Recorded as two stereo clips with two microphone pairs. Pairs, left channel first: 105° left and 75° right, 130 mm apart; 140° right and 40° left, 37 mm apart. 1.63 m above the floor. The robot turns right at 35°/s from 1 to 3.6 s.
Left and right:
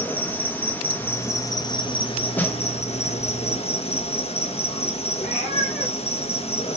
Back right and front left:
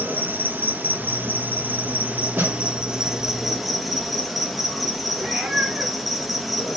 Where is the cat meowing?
95° left, 4.5 m.